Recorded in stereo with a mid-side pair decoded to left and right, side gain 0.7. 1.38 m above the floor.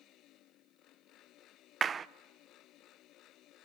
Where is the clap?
25° right, 0.5 m.